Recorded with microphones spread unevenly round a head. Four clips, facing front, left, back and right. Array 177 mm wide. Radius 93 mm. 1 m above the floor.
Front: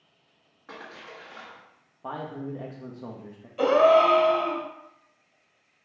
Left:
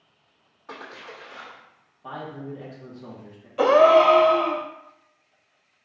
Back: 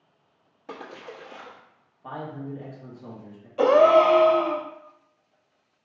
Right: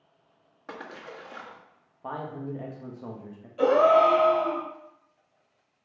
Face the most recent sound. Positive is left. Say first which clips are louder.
# left 4 dB, back 2 dB
turn(degrees=145)